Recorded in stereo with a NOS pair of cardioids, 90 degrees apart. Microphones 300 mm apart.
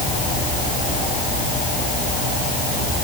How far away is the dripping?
I don't hear dripping.